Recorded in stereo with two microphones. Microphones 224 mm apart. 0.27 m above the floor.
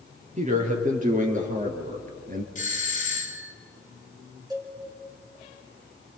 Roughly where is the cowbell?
Centre.